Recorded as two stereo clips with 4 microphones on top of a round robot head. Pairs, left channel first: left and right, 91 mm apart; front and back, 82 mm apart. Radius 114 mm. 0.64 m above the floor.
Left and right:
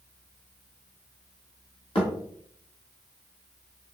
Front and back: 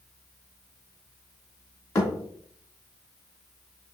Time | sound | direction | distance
1.9 | a thud | 55° left | 2 m